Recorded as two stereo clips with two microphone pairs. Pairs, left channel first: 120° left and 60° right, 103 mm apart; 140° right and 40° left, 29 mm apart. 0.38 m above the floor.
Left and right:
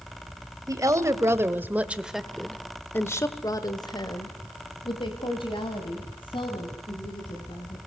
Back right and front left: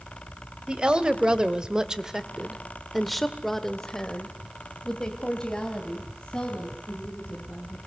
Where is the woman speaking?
5° right, 2 m; by 7.8 s 160° left, 4.5 m.